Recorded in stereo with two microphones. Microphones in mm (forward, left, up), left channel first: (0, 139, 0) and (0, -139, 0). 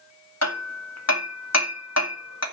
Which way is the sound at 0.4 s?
65° left (ahead or behind).